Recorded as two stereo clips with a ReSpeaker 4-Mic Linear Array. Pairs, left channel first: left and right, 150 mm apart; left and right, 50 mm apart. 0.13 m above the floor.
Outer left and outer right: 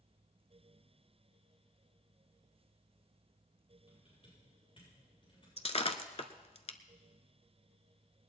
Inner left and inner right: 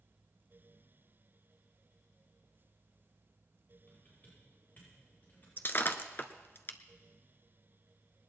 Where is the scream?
No scream in this recording.